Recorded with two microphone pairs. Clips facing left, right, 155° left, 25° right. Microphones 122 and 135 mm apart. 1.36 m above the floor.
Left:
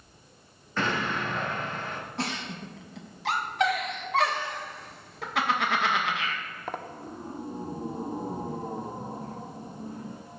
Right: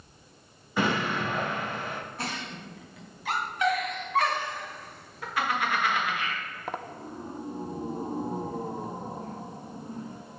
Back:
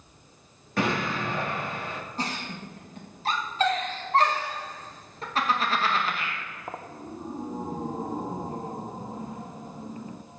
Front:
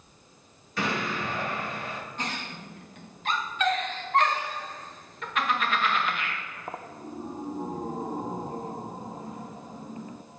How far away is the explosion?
About 2 m.